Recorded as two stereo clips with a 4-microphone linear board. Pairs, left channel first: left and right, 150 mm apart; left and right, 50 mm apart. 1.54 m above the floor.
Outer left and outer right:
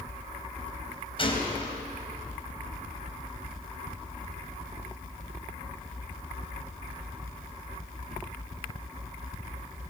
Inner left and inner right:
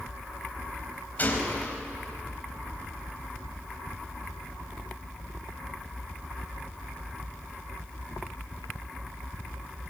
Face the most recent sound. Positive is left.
turn(degrees=35)  # may be behind; listen again after turning